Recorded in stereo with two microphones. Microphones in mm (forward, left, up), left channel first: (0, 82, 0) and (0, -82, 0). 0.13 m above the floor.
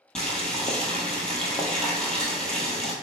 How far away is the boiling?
About 1.1 m.